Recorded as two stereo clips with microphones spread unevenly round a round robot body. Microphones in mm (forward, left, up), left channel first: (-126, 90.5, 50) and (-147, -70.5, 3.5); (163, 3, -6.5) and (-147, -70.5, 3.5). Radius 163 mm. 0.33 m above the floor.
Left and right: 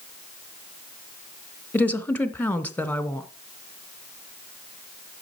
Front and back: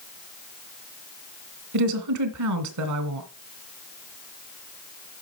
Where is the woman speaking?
175° left, 1.3 m.